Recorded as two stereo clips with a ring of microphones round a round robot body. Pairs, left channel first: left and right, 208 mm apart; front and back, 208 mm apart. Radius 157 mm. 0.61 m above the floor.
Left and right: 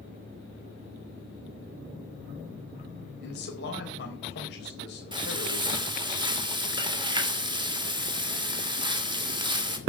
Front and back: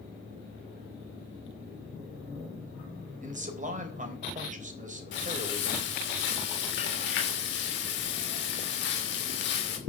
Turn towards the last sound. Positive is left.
turn(degrees=-25)